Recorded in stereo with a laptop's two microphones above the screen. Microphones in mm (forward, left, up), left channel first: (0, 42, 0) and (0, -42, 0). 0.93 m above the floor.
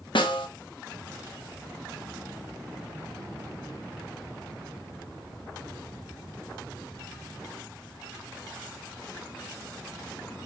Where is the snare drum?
80° left, 0.8 m.